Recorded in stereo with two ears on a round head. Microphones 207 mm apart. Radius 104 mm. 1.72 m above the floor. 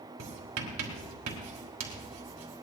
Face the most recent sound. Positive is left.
turn(degrees=-75)  # may be behind; listen again after turning